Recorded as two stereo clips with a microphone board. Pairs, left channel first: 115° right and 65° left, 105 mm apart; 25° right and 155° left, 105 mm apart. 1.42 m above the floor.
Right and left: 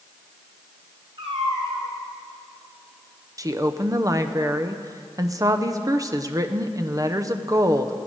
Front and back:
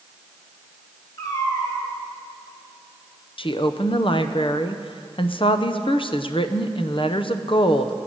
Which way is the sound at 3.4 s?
10° left.